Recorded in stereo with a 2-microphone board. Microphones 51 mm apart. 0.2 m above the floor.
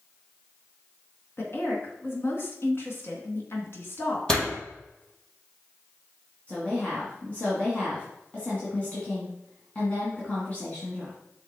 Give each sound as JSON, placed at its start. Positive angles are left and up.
{"t": 1.4, "sound": "a woman speaking", "side_deg": 50, "distance_m": 2.5}
{"t": 4.3, "sound": "a door slam", "side_deg": 15, "distance_m": 4.0}
{"t": 6.5, "sound": "a woman speaking", "side_deg": 30, "distance_m": 2.0}